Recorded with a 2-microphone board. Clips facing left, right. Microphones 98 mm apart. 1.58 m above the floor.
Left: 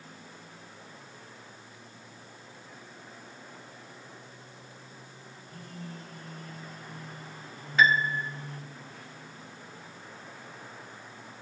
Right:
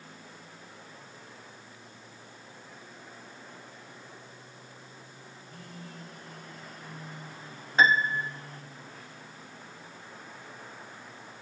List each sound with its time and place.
5.4 s a phone buzzing: 50° left (ahead or behind), 6.5 m
7.8 s a piano: 35° right (ahead or behind), 0.6 m